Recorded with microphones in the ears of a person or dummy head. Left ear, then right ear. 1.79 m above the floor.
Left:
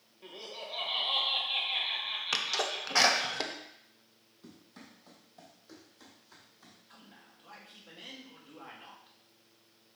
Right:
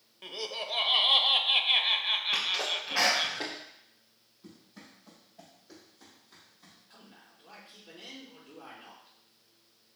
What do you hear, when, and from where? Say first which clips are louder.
0.2 s laughter: right 7 dB; 55° right (ahead or behind), 1.0 m
2.3 s a sneeze: right 2 dB; 70° left (ahead or behind), 1.4 m
4.4 s running footsteps: right 1 dB; 65° left (ahead or behind), 4.5 m; by 6.8 s 55° left (ahead or behind), 4.5 m
6.9 s a man speaking: right 1 dB; 35° left (ahead or behind), 2.5 m